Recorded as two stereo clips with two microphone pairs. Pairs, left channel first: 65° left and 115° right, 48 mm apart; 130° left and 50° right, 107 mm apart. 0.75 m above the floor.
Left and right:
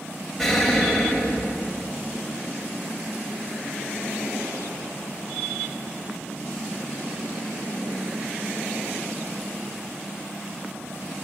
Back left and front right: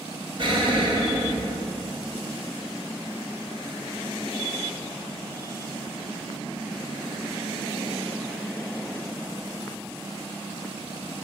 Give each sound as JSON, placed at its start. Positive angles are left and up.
{"t": 0.4, "sound": "an explosion", "azimuth_deg": -15, "distance_m": 2.5}